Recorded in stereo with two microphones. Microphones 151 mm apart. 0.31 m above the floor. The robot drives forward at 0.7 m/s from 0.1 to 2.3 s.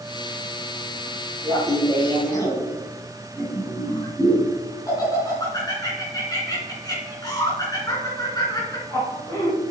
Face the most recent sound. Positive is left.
turn(degrees=25)  # may be behind; listen again after turning